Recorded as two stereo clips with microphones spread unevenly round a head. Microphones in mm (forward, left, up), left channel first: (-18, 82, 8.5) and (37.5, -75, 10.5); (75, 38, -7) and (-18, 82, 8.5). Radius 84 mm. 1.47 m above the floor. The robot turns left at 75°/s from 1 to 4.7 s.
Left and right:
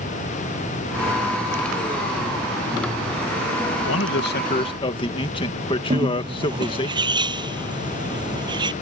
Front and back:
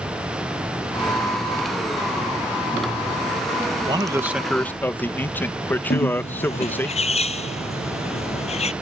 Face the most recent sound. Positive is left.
turn(degrees=-5)